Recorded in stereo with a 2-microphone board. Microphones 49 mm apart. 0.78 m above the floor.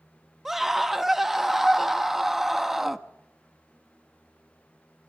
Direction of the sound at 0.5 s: 10° right (ahead or behind).